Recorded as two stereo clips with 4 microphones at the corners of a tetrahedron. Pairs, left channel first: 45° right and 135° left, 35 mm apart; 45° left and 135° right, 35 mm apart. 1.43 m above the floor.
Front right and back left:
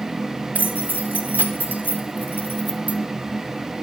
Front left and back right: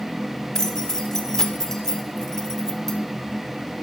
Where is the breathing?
I don't hear breathing.